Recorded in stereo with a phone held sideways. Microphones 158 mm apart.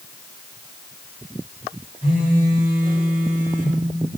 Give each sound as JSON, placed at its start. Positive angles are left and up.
{"t": 2.0, "sound": "a phone buzzing", "side_deg": -60, "distance_m": 4.0}